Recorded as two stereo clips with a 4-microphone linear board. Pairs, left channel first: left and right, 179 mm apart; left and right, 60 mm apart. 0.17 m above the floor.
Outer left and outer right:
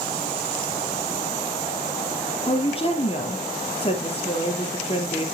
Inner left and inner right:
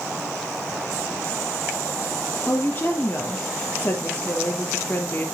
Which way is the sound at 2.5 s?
30° left (ahead or behind).